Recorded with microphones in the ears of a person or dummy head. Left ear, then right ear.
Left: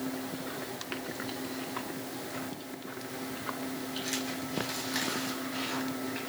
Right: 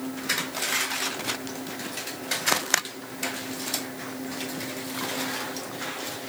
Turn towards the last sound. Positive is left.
No sound to turn to.